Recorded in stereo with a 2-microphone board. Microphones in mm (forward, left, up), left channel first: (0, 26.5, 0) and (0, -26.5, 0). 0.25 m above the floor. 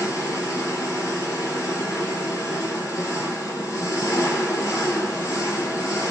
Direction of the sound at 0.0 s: 75° left (ahead or behind).